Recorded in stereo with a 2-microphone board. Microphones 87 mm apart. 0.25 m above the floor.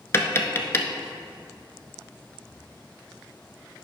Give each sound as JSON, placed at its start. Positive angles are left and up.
{"t": 0.1, "sound": "tapping", "side_deg": 30, "distance_m": 0.6}